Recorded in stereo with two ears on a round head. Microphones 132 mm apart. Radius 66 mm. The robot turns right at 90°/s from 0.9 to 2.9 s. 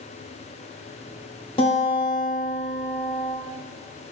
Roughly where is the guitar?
Ahead left.